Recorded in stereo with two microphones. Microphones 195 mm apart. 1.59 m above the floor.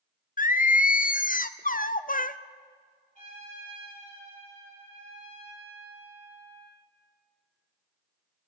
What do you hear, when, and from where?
0.4 s singing: 45° left (ahead or behind), 0.5 m
3.1 s a trumpet: 40° left (ahead or behind), 9.5 m